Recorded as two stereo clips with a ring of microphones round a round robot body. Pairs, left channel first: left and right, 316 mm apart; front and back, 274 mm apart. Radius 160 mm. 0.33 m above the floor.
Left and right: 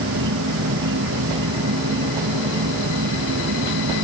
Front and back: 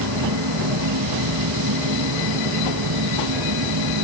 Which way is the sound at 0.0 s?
145° right.